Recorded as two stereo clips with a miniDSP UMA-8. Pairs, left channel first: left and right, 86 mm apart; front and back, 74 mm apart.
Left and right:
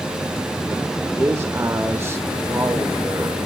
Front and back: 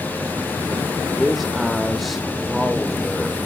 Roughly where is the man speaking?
Right.